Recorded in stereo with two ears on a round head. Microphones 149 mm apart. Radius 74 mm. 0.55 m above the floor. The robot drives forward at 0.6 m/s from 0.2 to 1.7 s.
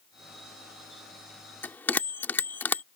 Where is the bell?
10° left (ahead or behind).